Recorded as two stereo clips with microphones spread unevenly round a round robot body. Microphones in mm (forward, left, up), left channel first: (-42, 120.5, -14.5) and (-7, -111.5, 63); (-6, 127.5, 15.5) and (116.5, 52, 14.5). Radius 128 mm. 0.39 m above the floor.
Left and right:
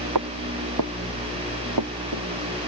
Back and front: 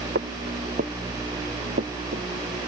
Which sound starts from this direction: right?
Footsteps, at 0.1 s.